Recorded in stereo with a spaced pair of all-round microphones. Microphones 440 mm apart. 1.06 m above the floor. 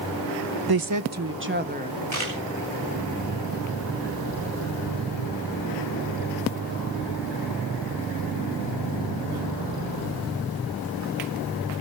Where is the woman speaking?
55° right (ahead or behind), 0.6 m; by 2.0 s 15° right (ahead or behind), 1.5 m.